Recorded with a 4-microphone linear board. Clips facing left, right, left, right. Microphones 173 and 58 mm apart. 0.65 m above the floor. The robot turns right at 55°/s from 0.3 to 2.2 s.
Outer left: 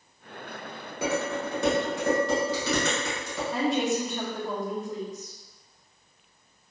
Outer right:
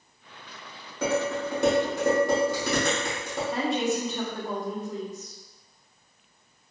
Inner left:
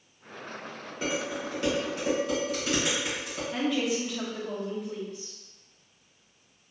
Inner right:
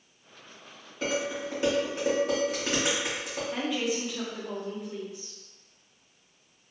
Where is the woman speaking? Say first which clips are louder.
Outer left 1 dB, inner left 3 dB; centre (ahead or behind), 0.8 m.